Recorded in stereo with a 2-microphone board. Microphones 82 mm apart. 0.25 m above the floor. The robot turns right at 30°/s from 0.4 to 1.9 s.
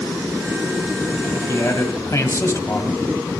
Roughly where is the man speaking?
Left.